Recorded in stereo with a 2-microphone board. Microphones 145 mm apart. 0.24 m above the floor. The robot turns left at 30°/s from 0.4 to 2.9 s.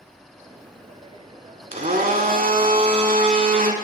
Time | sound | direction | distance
1.7 | a blender | 70° right | 0.7 m